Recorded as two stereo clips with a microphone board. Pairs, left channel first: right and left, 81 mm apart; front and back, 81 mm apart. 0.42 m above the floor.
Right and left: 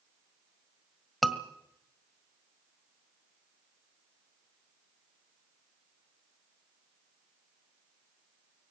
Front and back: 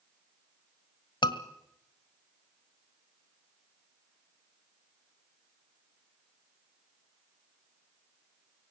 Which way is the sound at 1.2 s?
Straight ahead.